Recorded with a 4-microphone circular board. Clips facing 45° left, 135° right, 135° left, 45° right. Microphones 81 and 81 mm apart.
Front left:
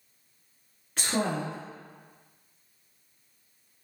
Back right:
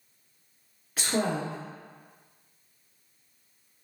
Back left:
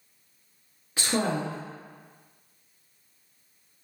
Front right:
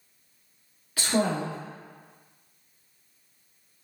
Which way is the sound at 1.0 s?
145° left.